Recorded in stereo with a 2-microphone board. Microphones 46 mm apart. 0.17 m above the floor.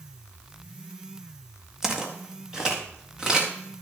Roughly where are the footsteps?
Centre.